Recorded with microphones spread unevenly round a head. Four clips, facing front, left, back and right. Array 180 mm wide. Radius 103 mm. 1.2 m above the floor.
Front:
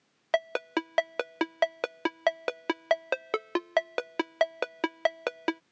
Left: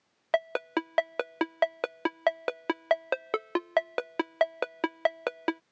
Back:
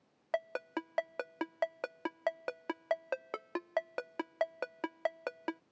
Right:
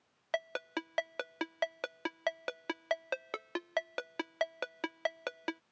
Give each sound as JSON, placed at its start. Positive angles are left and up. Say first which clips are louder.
{"t": 0.3, "sound": "a ringtone", "louder": "left 9 dB, front 8 dB", "azimuth_deg": 35}